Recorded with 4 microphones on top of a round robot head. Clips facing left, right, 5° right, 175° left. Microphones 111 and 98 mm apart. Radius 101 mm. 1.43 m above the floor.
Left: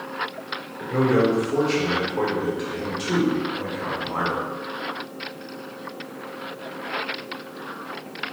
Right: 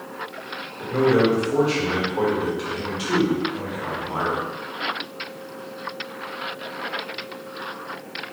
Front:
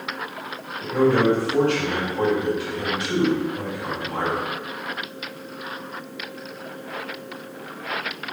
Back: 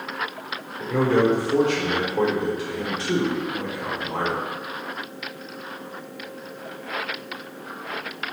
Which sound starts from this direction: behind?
A man speaking, at 0.8 s.